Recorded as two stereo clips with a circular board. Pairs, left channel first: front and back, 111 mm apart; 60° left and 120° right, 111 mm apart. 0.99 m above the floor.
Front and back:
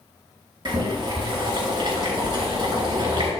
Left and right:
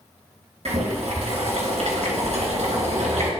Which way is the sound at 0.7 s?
130° right.